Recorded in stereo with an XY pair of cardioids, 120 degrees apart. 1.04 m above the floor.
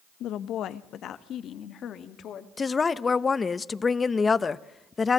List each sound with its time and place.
0.2 s a woman speaking: 70° left, 0.7 m; by 2.5 s 55° left, 1.8 m
2.6 s a woman speaking: 25° left, 0.7 m